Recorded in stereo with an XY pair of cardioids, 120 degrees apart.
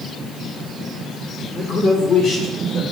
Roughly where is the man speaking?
Ahead left.